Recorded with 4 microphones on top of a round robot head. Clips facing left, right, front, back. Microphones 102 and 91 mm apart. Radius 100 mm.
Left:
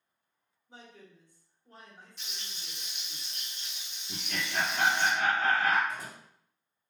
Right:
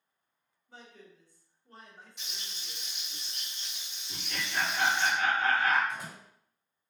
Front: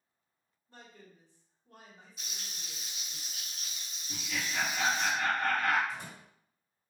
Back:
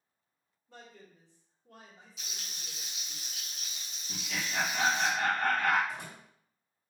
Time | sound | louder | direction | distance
0.7 | a man speaking | even, back 2 dB | 165° left | 2.5 m
2.2 | frying | even, even | 170° right | 1.1 m
4.1 | laughter | left 1 dB, even | 150° left | 1.6 m
5.9 | a door slam | even, even | 155° left | 2 m